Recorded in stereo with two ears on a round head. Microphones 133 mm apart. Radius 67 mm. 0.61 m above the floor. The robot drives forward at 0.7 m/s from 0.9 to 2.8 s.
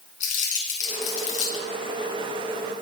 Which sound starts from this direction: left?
Crumpling, at 0.2 s.